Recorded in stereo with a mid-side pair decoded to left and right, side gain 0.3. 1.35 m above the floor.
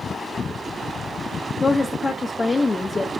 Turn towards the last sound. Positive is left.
turn(degrees=35)